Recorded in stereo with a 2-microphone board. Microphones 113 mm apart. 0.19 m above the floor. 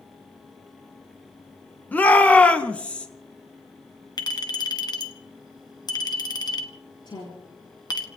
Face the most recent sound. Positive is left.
turn(degrees=40)  # may be behind; listen again after turning